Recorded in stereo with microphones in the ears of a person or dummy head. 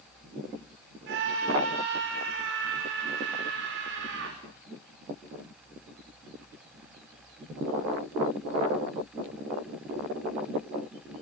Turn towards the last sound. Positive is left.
turn(degrees=-65)  # may be behind; listen again after turning